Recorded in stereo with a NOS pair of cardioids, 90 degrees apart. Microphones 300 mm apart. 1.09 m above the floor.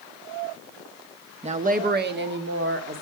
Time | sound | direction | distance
1.4 | a woman speaking | 20° right | 1.2 m